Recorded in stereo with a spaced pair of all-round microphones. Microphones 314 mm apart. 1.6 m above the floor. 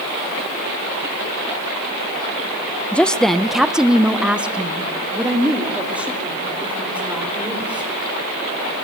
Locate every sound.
2.9 s a woman speaking: 5° left (ahead or behind), 0.6 m; by 7.9 s 5° right (ahead or behind), 5 m